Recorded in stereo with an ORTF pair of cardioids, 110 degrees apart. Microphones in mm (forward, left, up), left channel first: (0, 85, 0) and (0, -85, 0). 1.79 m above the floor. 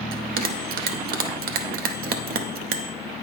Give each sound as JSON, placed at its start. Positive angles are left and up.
{"t": 0.1, "sound": "a bell", "azimuth_deg": -60, "distance_m": 0.7}